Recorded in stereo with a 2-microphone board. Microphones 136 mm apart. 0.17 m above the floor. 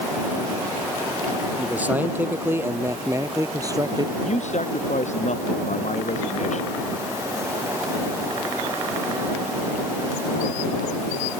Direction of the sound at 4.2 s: 60° left (ahead or behind).